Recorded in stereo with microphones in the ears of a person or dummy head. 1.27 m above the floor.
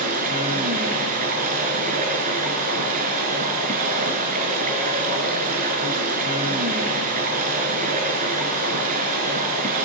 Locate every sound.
0.0 s running water: 45° right (ahead or behind), 4.5 m